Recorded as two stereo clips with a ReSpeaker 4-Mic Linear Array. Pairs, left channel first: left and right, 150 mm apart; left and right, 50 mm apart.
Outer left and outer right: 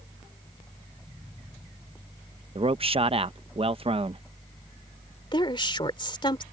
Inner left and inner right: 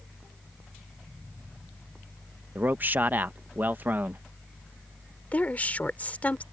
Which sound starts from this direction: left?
A woman speaking, at 5.3 s.